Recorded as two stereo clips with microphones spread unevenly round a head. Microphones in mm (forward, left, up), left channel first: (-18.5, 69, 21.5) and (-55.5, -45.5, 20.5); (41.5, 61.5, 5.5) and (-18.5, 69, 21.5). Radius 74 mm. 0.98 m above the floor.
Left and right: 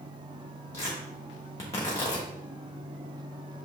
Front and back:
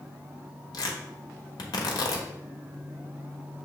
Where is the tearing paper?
Straight ahead, 1.0 m.